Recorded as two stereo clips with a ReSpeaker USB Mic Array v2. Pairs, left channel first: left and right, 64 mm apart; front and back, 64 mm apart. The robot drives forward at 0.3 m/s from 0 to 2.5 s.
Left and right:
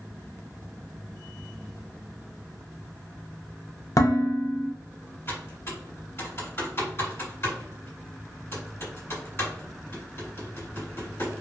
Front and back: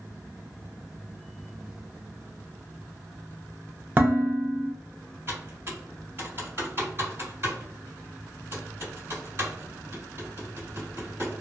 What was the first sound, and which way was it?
Dishes clattering, 120° left.